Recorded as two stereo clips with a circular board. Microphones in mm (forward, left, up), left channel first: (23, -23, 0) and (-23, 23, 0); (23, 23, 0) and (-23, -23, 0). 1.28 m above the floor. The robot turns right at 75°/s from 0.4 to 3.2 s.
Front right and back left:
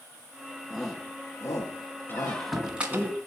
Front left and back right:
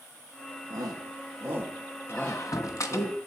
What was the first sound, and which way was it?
A shout, 140° right.